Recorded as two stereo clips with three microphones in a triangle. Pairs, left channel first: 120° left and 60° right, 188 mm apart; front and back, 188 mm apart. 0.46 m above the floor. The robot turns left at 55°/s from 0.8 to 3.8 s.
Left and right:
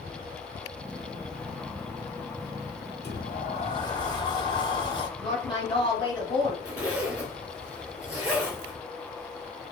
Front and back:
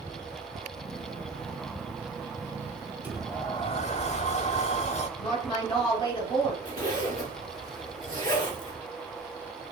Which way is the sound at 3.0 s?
100° left.